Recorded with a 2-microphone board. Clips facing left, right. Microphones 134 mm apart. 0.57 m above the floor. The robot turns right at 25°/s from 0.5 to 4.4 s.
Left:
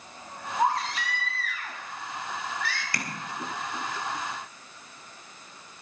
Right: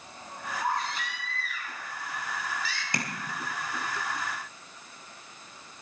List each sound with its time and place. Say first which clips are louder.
0.6 s a baby crying: left 5 dB; 75° left, 3.5 m; by 2.8 s 130° left, 3.5 m
2.9 s tapping: right 2 dB; 20° right (ahead or behind), 2 m